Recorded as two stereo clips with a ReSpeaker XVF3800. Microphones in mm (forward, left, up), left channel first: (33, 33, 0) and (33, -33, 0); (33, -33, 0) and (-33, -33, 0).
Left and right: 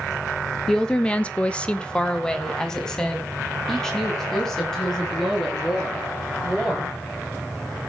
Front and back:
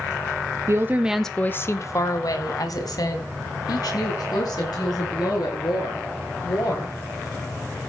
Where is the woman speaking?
165° left, 1.1 m; by 7.0 s 5° left, 8.5 m.